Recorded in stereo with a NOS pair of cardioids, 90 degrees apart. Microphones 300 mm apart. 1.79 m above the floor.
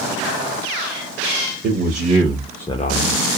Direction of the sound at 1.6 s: 35° right.